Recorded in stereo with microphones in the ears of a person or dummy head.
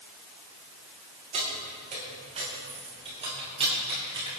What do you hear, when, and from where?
1.3 s keys jangling: 40° right (ahead or behind), 5 m; by 4.4 s 30° right (ahead or behind), 7 m